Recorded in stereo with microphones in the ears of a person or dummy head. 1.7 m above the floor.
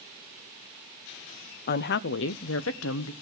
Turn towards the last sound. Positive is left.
turn(degrees=80)